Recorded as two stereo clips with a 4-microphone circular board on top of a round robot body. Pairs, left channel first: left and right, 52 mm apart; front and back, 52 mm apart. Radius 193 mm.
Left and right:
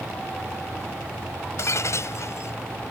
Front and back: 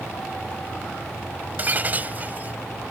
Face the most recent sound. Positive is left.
turn(degrees=125)